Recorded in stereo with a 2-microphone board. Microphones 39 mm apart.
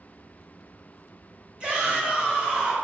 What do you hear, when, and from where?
1.6 s a shout: 25° right (ahead or behind), 1.8 m